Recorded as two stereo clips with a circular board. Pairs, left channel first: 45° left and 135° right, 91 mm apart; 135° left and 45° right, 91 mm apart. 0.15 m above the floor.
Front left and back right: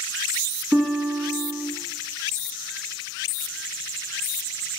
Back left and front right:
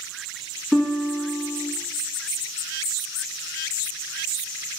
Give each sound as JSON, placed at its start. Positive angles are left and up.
{"t": 0.7, "sound": "a guitar", "azimuth_deg": -125, "distance_m": 1.8}